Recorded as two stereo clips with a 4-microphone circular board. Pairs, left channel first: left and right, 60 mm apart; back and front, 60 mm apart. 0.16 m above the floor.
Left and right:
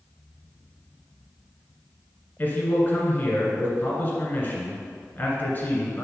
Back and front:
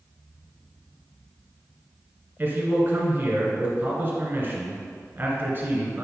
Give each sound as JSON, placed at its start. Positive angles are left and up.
{"t": 2.4, "sound": "a man speaking", "azimuth_deg": 40, "distance_m": 1.9}